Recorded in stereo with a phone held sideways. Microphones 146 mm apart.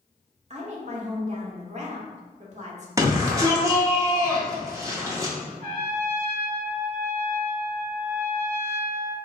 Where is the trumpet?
75° right (ahead or behind), 1.1 m.